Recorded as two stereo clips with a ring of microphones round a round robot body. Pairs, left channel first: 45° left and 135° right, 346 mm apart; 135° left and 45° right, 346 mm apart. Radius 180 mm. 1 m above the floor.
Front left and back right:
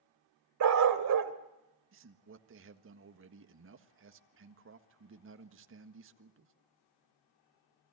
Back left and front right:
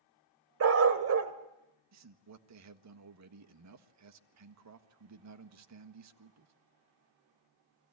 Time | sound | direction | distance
0.6 | a dog barking | 95° right | 1.3 m
1.9 | a man speaking | 85° right | 1.6 m